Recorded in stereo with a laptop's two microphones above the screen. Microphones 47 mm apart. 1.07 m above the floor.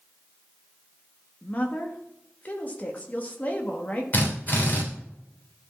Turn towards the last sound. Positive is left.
turn(degrees=40)  # may be behind; listen again after turning